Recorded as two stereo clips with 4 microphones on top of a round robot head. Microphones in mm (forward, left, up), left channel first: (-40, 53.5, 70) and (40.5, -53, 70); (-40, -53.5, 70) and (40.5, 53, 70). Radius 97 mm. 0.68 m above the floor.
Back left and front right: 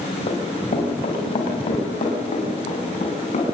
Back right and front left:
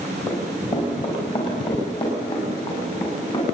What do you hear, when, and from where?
0.3 s running footsteps: 175° right, 5 m; by 3.4 s 175° left, 7.5 m